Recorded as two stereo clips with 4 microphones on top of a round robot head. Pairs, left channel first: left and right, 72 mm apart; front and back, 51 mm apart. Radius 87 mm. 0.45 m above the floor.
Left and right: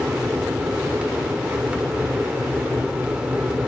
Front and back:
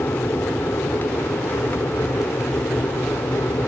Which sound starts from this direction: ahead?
An aircraft, at 0.0 s.